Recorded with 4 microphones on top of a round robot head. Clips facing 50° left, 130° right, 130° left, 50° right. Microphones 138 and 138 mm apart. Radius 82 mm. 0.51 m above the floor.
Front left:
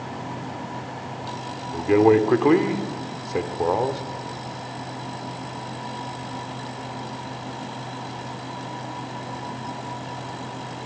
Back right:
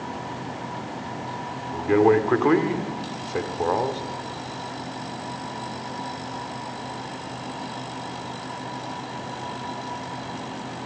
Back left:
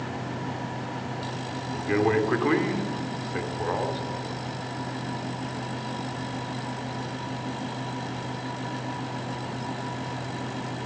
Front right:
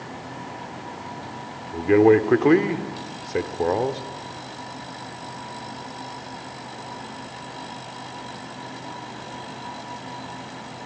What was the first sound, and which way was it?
A man speaking, 25° right.